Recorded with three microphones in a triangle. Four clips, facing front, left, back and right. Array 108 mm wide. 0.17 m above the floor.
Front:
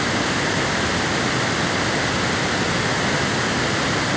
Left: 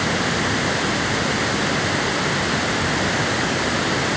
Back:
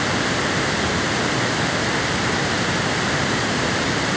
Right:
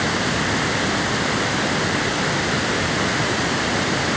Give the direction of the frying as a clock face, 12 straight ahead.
No frying in this recording.